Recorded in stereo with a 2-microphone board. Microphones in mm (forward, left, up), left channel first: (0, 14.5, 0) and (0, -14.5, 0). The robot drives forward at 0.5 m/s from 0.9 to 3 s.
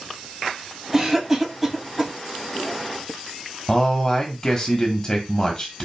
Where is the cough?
15° right (ahead or behind), 1.3 m; by 2.1 s 10° right (ahead or behind), 1.6 m.